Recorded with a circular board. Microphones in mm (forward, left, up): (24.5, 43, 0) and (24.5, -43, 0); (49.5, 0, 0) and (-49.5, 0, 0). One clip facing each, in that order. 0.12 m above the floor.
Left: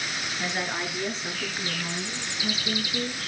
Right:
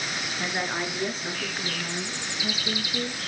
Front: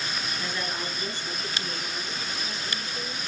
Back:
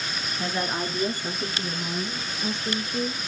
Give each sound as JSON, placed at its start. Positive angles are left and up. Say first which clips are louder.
{"t": 0.4, "sound": "a woman speaking", "louder": "right 1 dB, back 8 dB", "azimuth_deg": -155, "distance_m": 1.2}